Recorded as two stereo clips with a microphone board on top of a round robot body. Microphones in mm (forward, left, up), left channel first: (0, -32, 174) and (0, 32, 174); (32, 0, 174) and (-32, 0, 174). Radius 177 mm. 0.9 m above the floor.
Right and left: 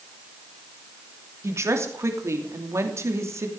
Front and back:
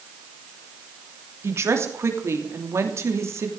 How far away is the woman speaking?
About 3 m.